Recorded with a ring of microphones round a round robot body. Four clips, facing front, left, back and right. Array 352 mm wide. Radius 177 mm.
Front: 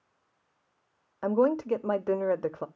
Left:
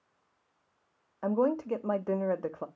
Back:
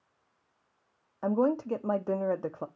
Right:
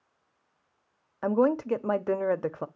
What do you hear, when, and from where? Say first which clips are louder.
1.2 s a woman speaking: right 4 dB, front 2 dB; 65° right, 0.6 m